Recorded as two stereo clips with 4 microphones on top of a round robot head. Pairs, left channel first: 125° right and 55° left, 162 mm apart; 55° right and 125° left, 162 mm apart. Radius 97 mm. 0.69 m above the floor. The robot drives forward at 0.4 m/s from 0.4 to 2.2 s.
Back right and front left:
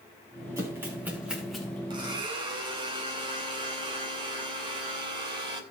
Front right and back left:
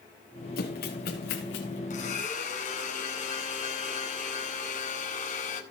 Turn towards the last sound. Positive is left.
turn(degrees=-10)